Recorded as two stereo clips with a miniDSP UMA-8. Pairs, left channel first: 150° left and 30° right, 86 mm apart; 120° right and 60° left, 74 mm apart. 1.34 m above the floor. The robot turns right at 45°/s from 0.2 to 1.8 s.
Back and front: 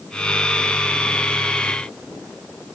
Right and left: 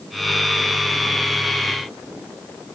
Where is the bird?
I don't hear a bird.